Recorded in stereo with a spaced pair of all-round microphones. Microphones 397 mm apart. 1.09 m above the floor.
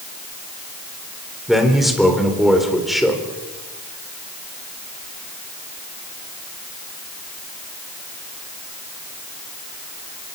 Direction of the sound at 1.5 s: Centre (ahead or behind).